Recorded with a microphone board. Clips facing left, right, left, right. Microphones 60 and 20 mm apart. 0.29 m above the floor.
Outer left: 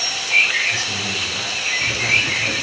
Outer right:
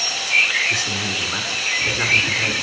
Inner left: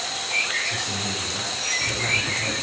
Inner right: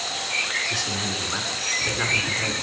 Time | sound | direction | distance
0.7 | a man speaking | 60° right (ahead or behind) | 2 m